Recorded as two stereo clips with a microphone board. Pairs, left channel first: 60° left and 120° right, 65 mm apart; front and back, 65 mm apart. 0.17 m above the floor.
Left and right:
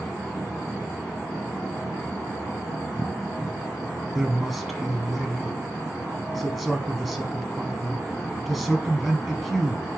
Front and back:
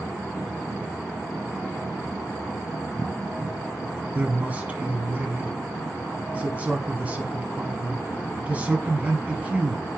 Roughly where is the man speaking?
Behind left.